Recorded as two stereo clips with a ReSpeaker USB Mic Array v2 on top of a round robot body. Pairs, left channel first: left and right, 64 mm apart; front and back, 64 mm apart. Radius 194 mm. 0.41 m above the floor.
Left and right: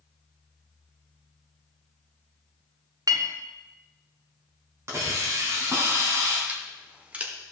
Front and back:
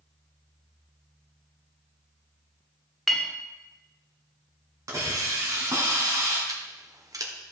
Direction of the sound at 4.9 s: 140° right.